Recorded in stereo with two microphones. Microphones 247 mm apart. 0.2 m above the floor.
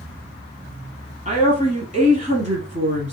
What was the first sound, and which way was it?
A woman speaking, 30° right (ahead or behind).